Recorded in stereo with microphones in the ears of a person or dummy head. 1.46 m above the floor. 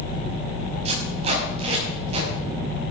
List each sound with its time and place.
0.8 s tape being pulled: 35° right (ahead or behind), 6 m